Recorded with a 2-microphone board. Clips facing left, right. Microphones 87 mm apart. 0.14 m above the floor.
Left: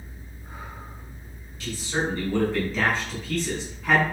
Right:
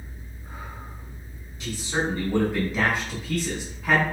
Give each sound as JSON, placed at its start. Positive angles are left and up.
{"t": 1.6, "sound": "a man speaking", "side_deg": -20, "distance_m": 1.4}